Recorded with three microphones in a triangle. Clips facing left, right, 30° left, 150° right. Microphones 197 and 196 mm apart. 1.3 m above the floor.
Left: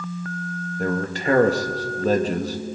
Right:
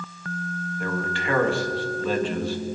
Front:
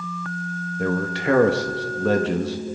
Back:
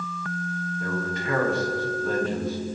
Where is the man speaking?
40° left, 1.6 m.